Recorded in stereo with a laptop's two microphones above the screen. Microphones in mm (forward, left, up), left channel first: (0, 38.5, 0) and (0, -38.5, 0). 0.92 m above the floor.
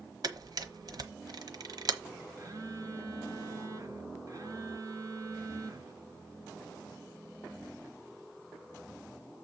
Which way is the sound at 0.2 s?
55° right (ahead or behind).